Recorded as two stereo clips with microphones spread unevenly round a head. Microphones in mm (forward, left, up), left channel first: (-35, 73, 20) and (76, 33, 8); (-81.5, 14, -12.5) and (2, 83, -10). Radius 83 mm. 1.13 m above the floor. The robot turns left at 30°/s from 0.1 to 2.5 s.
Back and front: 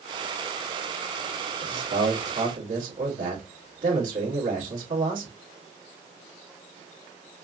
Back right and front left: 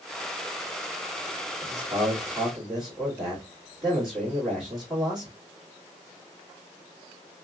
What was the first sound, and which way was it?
A man speaking, 20° right.